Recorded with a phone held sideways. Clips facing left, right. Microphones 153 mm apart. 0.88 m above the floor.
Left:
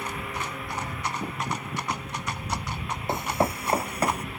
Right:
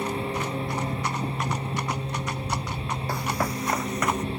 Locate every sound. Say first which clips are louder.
0.0 s a lawn mower: right 6 dB; 30° right (ahead or behind)
3.1 s running footsteps: left 3 dB; 20° left (ahead or behind); by 4.2 s 35° left (ahead or behind)